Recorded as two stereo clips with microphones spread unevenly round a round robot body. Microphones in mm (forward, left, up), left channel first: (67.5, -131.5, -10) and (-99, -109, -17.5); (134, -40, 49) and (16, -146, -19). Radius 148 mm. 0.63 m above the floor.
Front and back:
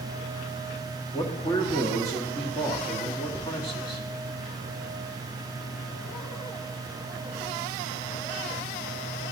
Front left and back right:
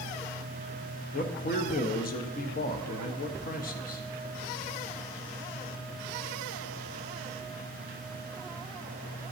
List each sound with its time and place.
1.1 s a man speaking: 45° left, 0.9 m